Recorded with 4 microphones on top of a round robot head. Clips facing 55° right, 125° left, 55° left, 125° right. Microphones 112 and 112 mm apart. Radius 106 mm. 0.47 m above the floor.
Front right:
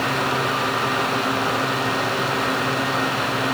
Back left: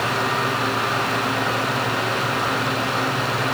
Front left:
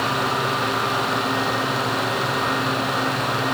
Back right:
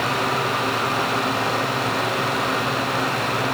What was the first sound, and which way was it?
Only background noise.